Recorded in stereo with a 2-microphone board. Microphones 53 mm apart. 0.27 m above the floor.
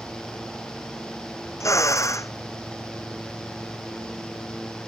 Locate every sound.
1.6 s a drill: 85° left